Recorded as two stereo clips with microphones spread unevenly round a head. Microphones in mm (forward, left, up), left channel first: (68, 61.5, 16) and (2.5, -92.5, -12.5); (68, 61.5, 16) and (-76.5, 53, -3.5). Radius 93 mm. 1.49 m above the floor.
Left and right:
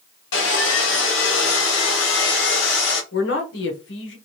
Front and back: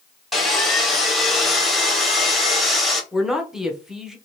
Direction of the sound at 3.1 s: 95° left.